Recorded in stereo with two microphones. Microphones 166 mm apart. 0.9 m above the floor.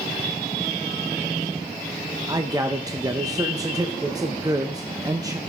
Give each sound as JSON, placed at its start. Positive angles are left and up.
{"t": 2.3, "sound": "a man speaking", "side_deg": -25, "distance_m": 0.6}